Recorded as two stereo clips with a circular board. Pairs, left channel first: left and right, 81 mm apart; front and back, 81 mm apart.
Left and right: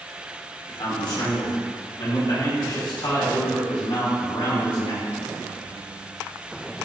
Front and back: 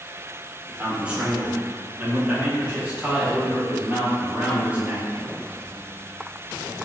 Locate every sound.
0.7 s a man speaking: 105° left, 3 m